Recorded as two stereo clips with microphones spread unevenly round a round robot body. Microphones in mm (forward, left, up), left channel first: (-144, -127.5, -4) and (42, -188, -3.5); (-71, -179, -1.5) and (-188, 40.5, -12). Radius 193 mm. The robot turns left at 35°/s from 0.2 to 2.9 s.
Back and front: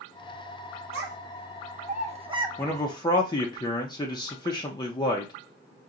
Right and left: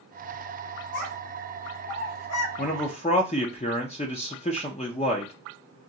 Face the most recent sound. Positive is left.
turn(degrees=-130)